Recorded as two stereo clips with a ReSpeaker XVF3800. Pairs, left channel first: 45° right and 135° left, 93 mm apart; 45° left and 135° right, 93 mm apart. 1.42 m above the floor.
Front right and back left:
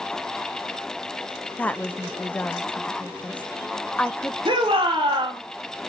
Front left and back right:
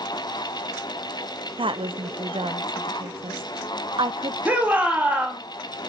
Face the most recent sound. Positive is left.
turn(degrees=150)